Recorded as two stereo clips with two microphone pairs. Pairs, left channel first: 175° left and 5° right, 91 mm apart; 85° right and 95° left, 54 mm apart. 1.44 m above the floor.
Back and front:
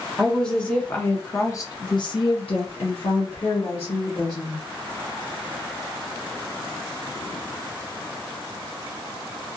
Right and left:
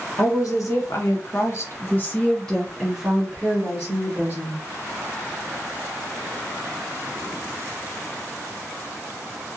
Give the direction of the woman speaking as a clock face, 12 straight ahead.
3 o'clock.